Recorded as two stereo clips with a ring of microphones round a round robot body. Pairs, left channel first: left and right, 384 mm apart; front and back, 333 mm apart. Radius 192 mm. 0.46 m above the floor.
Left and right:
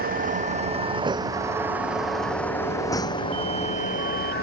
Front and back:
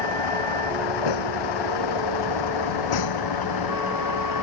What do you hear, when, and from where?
0.0 s a vehicle: 20° right; by 4.4 s 25° left